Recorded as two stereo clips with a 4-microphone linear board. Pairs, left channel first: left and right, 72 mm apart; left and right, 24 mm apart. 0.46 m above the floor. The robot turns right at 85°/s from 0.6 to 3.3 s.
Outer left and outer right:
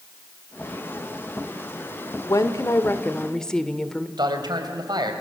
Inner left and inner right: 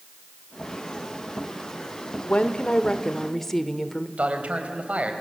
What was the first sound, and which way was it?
A woman speaking, 80° left.